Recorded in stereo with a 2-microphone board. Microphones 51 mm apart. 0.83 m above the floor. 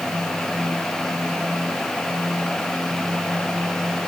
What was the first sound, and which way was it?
Only background noise.